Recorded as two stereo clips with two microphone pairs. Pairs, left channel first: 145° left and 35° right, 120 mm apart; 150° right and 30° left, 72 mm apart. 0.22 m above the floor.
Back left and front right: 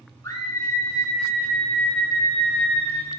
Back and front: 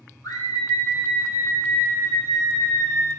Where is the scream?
160° right, 4 m; by 3.1 s 145° right, 6 m.